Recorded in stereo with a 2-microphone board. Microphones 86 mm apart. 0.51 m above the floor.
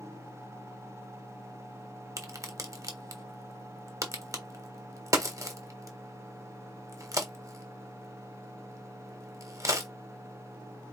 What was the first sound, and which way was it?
A crack, 40° right (ahead or behind).